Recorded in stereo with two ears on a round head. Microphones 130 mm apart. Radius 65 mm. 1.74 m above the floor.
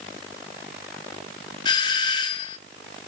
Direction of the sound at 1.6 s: 30° left (ahead or behind).